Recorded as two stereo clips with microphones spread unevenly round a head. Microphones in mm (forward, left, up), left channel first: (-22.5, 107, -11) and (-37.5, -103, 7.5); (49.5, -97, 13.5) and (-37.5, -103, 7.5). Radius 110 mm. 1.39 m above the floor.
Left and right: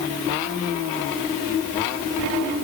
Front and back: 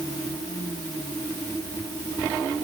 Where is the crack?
I don't hear a crack.